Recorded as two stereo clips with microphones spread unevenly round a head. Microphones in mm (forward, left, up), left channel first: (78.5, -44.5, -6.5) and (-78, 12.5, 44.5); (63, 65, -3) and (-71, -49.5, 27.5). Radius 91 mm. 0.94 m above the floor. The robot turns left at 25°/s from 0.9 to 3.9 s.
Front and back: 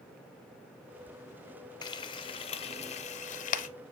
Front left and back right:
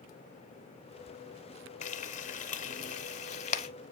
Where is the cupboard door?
No cupboard door in this recording.